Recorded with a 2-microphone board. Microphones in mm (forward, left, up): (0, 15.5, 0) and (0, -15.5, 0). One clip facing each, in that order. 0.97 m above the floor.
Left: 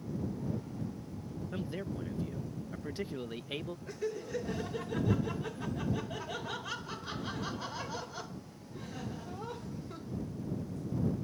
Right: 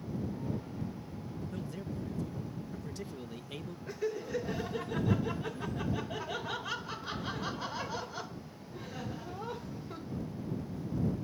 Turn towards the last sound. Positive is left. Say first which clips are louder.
# right 3 dB
turn(degrees=-10)  # may be behind; listen again after turning